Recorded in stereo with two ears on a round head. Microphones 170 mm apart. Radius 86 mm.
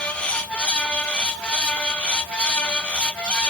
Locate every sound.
Only background noise.